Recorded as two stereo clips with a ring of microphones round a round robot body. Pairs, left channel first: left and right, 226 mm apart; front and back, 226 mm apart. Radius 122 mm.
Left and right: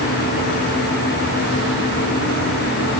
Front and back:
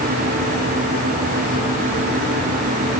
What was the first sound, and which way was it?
Only background noise.